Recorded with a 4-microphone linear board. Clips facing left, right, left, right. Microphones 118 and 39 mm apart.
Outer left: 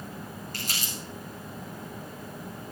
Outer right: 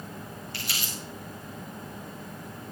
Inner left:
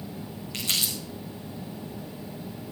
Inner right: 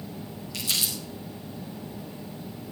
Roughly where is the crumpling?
Left.